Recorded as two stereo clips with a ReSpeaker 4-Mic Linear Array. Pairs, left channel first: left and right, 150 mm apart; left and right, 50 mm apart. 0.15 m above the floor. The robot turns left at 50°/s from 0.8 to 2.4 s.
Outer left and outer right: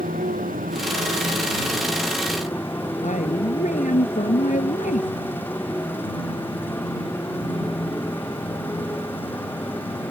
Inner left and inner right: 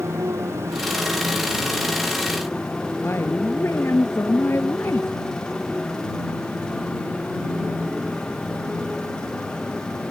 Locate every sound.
0.0 s a motorcycle: 115° right; by 10.1 s 165° left
3.0 s a woman speaking: 60° left (ahead or behind)